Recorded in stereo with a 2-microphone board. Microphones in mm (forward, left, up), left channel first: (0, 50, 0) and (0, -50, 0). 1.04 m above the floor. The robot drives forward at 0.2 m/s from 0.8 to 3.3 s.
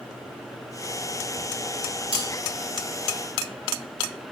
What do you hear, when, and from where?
2.1 s cutlery clinking: 15° right (ahead or behind), 5 m